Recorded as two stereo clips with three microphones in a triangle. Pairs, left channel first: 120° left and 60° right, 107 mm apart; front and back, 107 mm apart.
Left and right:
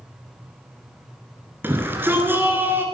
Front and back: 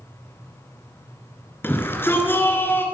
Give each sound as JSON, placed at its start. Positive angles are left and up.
{"t": 1.6, "sound": "a shout", "azimuth_deg": -30, "distance_m": 1.8}